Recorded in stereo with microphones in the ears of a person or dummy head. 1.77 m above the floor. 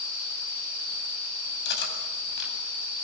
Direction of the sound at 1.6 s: 70° left (ahead or behind).